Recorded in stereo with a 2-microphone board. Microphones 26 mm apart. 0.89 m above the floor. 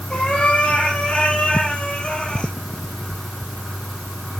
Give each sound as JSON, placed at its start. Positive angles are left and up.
{"t": 0.1, "sound": "a cat meowing", "side_deg": 65, "distance_m": 8.5}